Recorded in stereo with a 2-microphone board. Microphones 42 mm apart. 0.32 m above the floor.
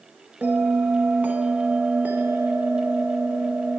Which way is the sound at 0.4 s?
50° right (ahead or behind).